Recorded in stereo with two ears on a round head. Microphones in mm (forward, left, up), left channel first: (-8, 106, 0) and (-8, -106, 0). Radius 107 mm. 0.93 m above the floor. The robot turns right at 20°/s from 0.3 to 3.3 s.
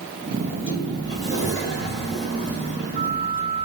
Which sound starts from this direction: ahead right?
A sliding door, at 0.4 s.